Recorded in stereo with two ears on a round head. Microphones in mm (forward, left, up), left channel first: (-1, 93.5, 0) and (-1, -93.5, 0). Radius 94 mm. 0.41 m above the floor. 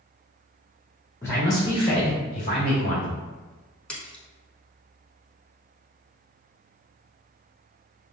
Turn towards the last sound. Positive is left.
turn(degrees=5)  # may be behind; listen again after turning